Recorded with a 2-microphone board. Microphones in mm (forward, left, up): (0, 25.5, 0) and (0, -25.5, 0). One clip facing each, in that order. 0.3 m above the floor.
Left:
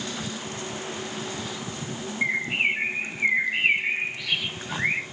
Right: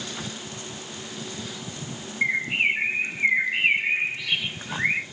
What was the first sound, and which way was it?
A bird, 5° right (ahead or behind).